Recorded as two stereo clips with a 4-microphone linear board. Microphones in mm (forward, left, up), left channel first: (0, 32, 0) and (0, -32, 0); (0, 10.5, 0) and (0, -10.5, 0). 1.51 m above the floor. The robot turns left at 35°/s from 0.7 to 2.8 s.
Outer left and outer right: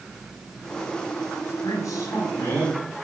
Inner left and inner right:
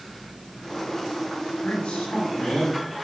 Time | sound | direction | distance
1.6 | a man speaking | 60° left | 8 m